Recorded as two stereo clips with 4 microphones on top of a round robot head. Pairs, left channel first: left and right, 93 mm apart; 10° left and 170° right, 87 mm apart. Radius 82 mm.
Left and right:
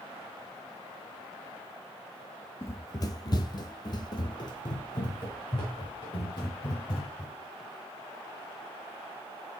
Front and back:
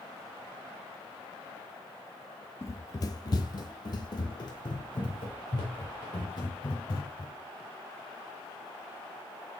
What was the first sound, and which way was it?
Running footsteps, 45° left.